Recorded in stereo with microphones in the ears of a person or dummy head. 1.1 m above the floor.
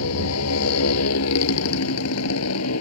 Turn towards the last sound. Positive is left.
turn(degrees=85)